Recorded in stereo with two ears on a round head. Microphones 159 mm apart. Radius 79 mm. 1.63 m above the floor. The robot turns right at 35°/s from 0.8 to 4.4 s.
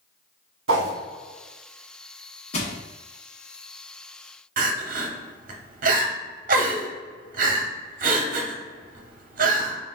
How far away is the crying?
About 0.7 m.